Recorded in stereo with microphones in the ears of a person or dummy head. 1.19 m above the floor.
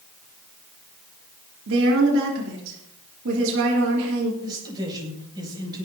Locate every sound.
1.7 s a woman speaking: 70° right (ahead or behind), 3.5 m
4.4 s a man speaking: 25° right (ahead or behind), 7 m